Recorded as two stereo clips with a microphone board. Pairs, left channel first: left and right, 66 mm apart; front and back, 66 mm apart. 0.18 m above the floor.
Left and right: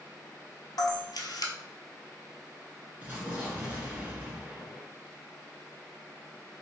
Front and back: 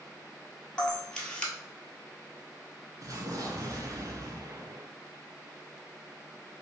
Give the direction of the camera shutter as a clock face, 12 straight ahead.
9 o'clock.